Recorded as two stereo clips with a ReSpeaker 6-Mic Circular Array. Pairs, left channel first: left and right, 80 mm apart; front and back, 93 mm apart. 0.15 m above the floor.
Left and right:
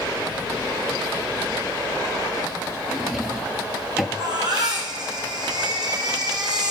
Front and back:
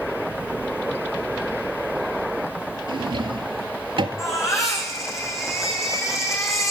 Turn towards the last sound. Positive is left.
turn(degrees=-55)